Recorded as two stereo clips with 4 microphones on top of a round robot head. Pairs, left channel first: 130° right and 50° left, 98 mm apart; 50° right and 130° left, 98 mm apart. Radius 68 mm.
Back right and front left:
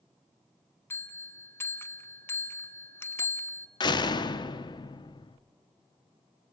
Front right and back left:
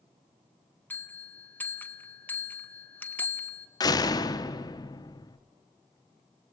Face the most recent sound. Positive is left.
turn(degrees=-95)